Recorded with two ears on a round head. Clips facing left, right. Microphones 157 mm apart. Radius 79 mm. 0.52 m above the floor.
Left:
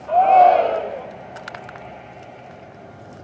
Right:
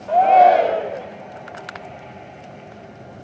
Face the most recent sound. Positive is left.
turn(degrees=-10)  # may be behind; listen again after turning